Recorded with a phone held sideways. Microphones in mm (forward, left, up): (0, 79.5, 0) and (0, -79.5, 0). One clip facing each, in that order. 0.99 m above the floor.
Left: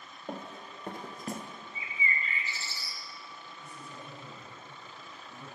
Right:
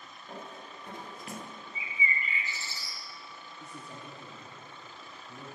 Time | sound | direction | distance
0.3 | running footsteps | 65° left (ahead or behind) | 2 m
1.8 | a bird | 15° right (ahead or behind) | 1.2 m
3.6 | a man speaking | 75° right (ahead or behind) | 2.5 m